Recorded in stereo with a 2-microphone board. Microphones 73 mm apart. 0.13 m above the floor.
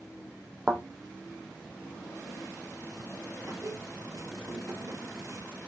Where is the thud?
15° right (ahead or behind), 2.5 m.